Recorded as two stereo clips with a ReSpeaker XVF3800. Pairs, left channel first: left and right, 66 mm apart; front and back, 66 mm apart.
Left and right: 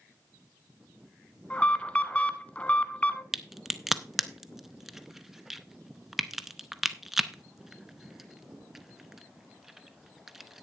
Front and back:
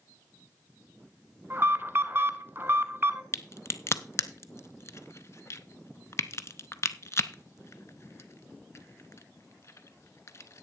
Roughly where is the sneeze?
I don't hear a sneeze.